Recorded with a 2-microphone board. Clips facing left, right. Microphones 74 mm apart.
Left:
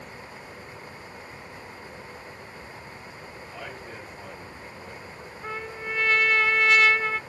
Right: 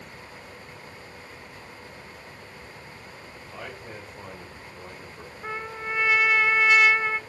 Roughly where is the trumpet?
Centre.